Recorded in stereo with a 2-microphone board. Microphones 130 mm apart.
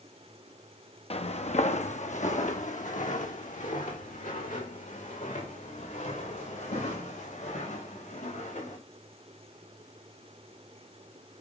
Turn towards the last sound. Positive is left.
turn(degrees=85)